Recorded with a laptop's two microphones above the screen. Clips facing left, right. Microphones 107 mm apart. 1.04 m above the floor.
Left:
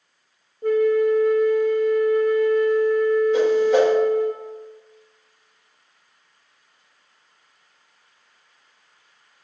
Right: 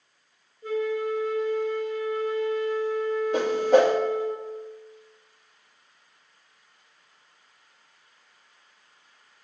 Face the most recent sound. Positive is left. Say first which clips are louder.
# right 1 dB
turn(degrees=-55)  # may be behind; listen again after turning